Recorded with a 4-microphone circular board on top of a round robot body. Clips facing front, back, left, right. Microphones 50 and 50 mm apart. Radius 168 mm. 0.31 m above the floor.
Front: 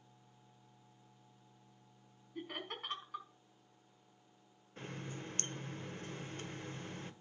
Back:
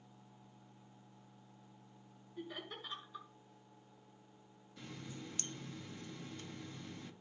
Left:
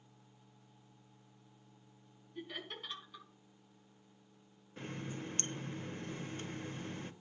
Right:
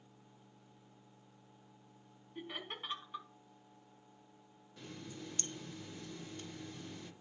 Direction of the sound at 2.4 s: 25° right.